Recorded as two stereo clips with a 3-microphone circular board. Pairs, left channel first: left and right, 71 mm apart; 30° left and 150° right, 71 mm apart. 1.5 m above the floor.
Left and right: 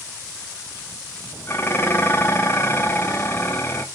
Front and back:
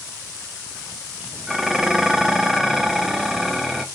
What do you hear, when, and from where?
1.5 s dishes clattering: 125° left, 0.9 m